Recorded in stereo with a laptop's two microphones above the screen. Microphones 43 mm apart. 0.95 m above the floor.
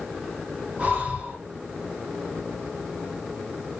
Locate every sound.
0.8 s breathing: 35° right (ahead or behind), 1.1 m